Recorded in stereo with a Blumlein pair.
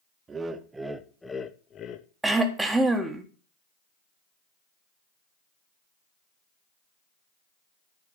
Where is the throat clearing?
5° right, 1.4 m.